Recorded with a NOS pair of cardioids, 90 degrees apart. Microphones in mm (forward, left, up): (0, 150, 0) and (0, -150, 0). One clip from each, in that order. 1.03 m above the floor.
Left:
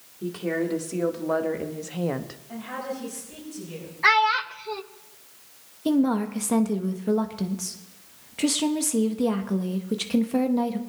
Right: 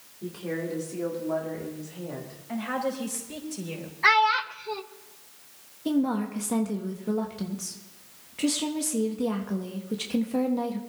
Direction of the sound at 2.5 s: 65° right.